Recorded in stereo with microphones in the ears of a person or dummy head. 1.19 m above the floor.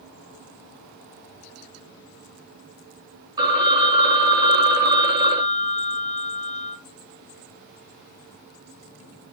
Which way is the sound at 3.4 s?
20° right (ahead or behind).